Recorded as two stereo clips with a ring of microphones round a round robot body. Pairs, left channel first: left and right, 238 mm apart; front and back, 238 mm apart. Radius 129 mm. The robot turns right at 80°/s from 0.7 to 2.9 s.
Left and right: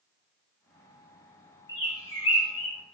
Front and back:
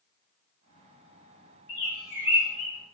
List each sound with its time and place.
1.7 s a bird: 15° left, 2.5 m; by 2.8 s 100° left, 2.5 m